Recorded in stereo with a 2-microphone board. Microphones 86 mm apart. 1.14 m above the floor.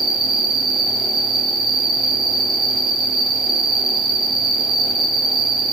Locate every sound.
0.0 s an insect: 5° right (ahead or behind), 1.1 m